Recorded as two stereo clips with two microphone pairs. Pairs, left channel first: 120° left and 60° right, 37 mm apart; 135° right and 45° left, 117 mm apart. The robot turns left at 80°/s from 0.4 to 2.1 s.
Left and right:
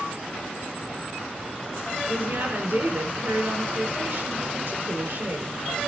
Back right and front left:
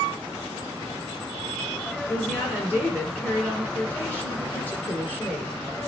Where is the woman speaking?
60° right, 4.5 m.